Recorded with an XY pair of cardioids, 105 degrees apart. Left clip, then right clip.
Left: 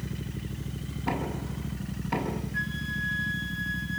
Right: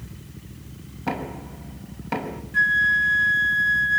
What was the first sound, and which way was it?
Knocking, 60° right.